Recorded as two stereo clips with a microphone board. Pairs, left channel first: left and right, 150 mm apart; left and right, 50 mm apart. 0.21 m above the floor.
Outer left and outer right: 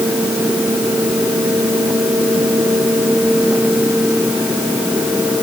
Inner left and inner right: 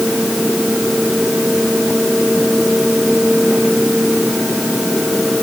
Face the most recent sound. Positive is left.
No sound to turn to.